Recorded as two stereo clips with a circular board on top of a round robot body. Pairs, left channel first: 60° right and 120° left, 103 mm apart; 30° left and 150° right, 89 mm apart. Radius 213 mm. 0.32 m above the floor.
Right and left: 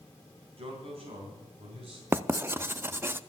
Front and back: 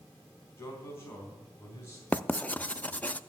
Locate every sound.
0.6 s a man speaking: 95° left, 4.5 m; by 2.0 s 90° left, 5 m
2.1 s writing: 80° left, 0.7 m